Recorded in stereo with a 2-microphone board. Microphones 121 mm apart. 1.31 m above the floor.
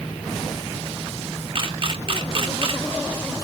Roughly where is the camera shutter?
Right.